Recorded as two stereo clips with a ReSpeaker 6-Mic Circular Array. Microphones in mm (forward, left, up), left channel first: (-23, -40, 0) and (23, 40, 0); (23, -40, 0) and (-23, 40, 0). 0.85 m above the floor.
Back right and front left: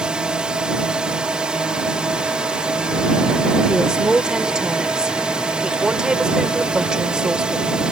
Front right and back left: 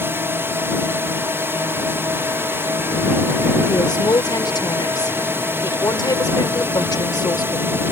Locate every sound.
0.0 s a drone: 125° left
3.7 s a woman speaking: 20° right